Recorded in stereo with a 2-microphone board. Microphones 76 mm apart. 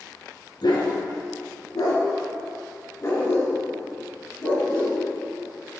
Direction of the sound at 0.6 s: 75° left (ahead or behind).